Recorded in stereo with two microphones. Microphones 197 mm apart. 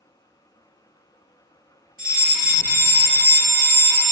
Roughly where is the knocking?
No knocking in this recording.